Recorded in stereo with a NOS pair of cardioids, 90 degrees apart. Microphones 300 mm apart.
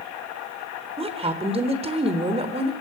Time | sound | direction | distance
1.0 | a woman speaking | 20° right | 4 m